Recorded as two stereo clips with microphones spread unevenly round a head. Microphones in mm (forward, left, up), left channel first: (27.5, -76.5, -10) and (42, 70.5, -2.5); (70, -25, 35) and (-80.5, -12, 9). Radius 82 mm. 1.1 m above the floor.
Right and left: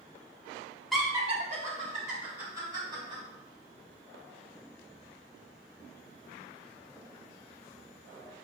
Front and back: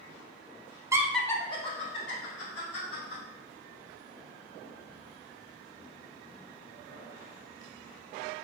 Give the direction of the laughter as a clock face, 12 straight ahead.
6 o'clock.